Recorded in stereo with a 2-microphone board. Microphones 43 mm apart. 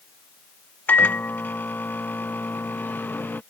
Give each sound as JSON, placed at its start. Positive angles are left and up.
{"t": 0.9, "sound": "a microwave", "side_deg": 50}